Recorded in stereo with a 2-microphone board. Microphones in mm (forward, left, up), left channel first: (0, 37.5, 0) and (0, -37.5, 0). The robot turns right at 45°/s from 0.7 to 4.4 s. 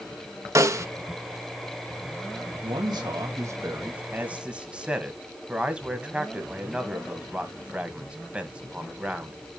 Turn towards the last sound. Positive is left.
turn(degrees=-15)  # may be behind; listen again after turning